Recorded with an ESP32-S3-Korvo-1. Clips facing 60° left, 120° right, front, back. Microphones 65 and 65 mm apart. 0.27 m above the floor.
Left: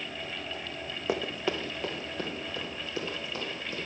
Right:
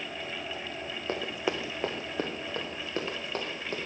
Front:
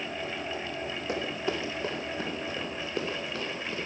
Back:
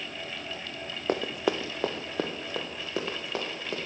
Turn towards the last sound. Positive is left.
turn(degrees=-165)